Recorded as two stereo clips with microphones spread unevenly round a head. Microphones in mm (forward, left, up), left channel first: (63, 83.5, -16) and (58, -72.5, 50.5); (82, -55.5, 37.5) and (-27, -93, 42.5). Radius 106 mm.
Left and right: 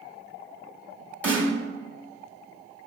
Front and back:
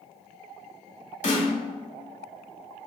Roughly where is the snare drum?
Ahead.